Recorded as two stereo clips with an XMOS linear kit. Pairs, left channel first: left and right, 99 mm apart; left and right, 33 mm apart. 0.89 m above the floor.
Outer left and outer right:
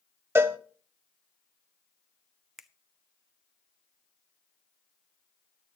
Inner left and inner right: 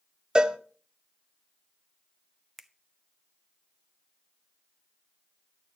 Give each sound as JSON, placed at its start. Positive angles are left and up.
{"t": 0.3, "sound": "a cowbell", "side_deg": -25, "distance_m": 0.7}
{"t": 2.6, "sound": "a finger snap", "side_deg": -5, "distance_m": 0.5}